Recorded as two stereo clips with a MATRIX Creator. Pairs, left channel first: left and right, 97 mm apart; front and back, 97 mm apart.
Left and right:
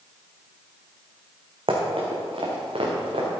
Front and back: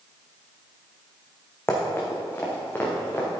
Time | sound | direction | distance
1.7 | running footsteps | 65° right | 3 m